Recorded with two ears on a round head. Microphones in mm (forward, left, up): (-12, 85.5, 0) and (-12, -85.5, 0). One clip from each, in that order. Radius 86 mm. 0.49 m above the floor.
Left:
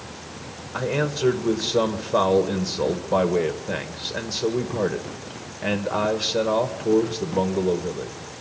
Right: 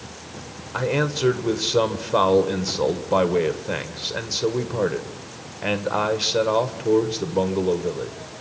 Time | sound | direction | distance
0.7 | a man speaking | 15° right (ahead or behind) | 1.7 m